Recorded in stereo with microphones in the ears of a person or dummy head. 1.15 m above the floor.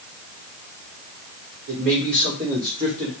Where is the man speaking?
60° right (ahead or behind), 3.5 m; by 3.1 s 45° right (ahead or behind), 3 m.